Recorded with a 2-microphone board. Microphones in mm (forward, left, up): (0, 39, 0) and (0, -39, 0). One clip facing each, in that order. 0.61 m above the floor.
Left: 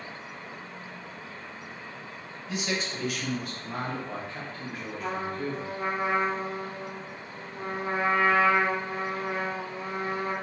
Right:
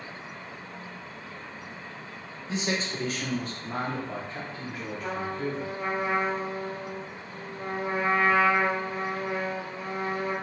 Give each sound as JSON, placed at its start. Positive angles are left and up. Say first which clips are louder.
{"t": 2.5, "sound": "a man speaking", "louder": "right 2 dB", "side_deg": -30, "distance_m": 0.8}
{"t": 5.0, "sound": "a trumpet", "louder": "even", "side_deg": 25, "distance_m": 1.4}